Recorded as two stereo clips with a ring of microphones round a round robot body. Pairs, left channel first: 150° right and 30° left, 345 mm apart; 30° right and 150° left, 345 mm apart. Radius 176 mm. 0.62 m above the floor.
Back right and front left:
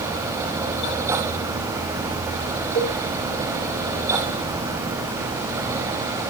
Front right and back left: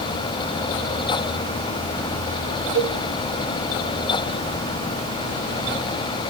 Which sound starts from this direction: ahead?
A cowbell, at 2.8 s.